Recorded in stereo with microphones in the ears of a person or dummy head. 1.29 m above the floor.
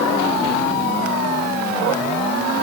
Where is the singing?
No singing in this recording.